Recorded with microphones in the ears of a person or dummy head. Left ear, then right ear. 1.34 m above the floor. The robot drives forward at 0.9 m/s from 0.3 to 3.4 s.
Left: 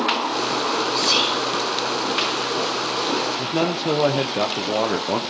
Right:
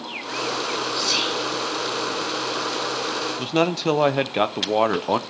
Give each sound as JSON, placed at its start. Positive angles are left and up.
{"t": 0.9, "sound": "whispering", "side_deg": 35, "distance_m": 3.0}
{"t": 3.4, "sound": "a man speaking", "side_deg": -35, "distance_m": 0.6}